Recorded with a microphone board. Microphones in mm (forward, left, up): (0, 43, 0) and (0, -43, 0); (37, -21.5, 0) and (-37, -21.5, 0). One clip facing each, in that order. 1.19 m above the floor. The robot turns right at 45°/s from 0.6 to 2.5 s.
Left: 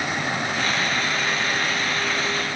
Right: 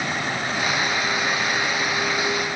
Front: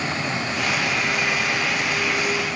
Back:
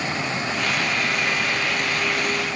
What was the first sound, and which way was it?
Only background noise.